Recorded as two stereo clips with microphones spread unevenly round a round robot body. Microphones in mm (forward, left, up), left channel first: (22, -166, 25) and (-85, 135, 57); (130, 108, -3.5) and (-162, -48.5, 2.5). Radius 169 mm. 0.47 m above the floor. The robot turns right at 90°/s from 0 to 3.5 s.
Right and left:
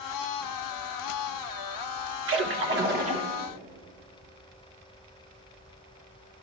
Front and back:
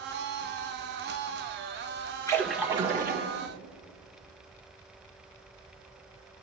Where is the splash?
95° left, 1.3 m; by 3.3 s 170° right, 1.3 m.